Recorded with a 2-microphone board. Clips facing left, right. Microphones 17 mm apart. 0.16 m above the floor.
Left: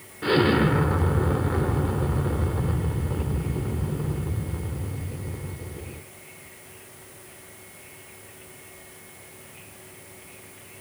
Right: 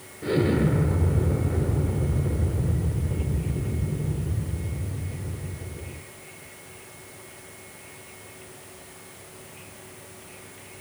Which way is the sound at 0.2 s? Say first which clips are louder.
Left 3 dB; 50° left (ahead or behind).